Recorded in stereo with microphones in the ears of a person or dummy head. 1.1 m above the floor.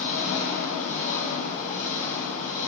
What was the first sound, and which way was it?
An engine running, 45° left (ahead or behind).